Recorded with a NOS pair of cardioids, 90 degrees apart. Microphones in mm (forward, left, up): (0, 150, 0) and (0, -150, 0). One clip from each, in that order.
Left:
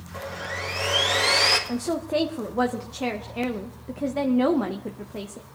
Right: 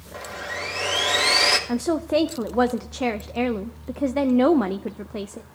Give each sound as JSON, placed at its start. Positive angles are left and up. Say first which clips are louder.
{"t": 0.1, "sound": "sawing", "louder": "right 1 dB", "azimuth_deg": -30, "distance_m": 2.5}
{"t": 1.7, "sound": "a woman speaking", "louder": "right 4 dB", "azimuth_deg": -20, "distance_m": 0.5}